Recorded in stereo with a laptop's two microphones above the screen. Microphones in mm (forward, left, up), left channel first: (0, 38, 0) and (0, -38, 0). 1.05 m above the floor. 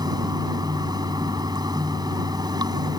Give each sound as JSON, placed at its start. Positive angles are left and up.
{"t": 0.0, "sound": "running water", "side_deg": -60}